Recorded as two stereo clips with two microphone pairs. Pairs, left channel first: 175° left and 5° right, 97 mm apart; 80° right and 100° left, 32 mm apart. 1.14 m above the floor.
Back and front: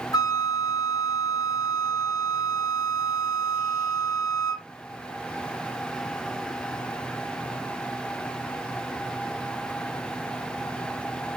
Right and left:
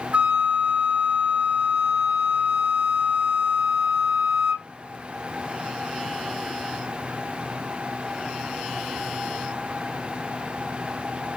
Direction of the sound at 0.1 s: 140° left.